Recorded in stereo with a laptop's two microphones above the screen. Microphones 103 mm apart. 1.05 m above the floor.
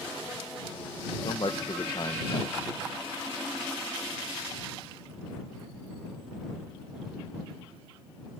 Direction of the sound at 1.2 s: 45° left (ahead or behind).